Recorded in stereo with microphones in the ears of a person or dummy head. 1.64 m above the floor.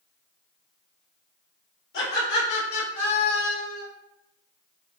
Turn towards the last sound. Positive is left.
turn(degrees=70)  # may be behind; listen again after turning